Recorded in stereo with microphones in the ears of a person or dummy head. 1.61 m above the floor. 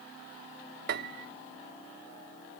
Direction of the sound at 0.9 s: 60° right (ahead or behind).